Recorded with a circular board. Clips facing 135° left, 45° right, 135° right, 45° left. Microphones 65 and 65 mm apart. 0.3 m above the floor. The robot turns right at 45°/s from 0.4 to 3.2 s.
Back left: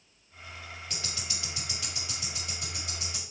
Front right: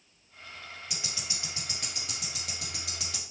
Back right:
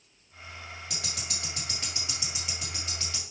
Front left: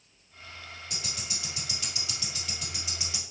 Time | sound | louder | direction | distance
0.9 | ticking | back left 1 dB, even | 130° right | 1.6 m